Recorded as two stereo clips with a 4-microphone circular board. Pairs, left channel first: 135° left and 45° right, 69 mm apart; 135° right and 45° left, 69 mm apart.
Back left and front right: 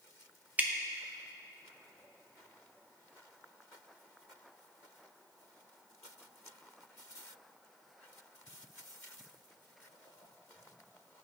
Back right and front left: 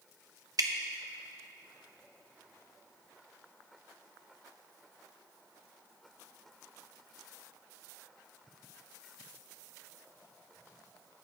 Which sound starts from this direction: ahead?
Dripping, at 0.6 s.